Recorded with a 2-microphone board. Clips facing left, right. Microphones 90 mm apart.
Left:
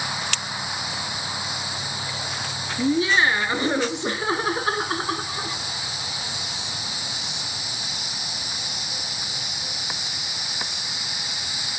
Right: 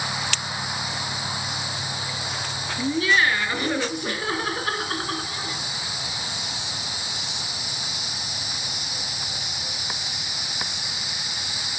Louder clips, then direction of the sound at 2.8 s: Left 2 dB; 25° left (ahead or behind).